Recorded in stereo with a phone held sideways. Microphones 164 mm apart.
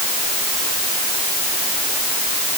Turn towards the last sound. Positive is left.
No sound to turn to.